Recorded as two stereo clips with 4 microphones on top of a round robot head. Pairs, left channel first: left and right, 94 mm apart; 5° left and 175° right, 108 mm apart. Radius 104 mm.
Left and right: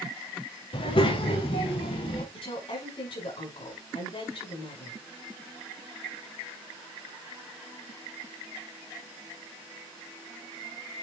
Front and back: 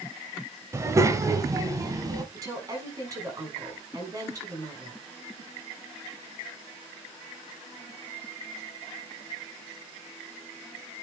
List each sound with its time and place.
0.7 s a child speaking: 120° left, 2.0 m; by 2.2 s 125° left, 3.5 m
2.3 s a woman speaking: 125° left, 6 m